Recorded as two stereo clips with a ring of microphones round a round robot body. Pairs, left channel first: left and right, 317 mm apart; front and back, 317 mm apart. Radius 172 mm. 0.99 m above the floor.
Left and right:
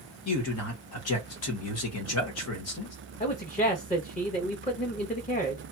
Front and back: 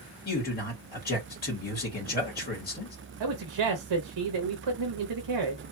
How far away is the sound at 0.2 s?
About 1.3 m.